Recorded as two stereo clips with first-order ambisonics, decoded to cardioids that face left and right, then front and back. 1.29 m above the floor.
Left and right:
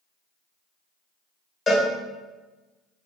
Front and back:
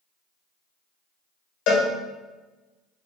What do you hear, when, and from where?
1.7 s a cowbell: 20° left, 1.0 m